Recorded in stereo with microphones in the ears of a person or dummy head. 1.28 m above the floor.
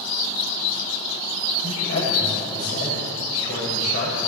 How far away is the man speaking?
About 7 m.